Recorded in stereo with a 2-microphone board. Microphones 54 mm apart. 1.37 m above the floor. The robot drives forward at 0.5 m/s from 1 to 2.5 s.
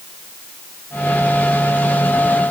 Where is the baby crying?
I don't hear a baby crying.